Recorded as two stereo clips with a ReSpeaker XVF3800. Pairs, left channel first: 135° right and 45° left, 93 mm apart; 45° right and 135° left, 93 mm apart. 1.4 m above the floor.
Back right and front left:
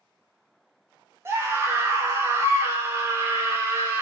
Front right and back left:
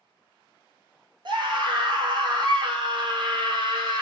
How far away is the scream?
About 0.8 m.